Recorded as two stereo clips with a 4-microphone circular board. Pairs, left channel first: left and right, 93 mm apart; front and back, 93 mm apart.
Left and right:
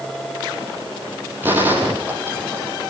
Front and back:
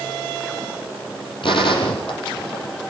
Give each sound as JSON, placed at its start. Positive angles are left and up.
{"t": 1.4, "sound": "a gunshot", "azimuth_deg": -25, "distance_m": 5.0}